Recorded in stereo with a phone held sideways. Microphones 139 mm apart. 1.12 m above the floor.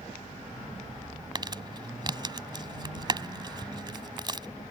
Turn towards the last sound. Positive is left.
turn(degrees=-35)  # may be behind; listen again after turning